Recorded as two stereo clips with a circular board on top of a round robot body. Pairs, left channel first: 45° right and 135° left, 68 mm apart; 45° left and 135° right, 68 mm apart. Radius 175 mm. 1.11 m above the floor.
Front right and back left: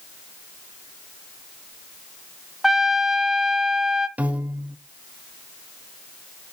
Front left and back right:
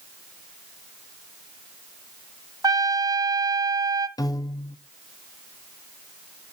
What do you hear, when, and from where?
2.6 s a trumpet: 140° right, 0.7 m
4.2 s a piano: 70° left, 1.2 m